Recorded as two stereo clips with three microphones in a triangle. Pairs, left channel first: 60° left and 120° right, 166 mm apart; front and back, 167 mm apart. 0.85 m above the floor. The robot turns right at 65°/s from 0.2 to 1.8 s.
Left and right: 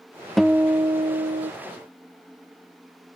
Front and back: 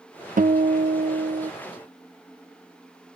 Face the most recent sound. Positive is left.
turn(degrees=-120)